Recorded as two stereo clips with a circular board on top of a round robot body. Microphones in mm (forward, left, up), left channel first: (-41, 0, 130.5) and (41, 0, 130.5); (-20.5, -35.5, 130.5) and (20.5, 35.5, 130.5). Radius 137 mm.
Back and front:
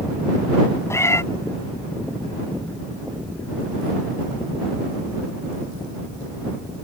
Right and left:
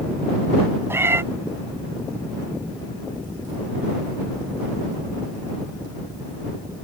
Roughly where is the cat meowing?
Behind left.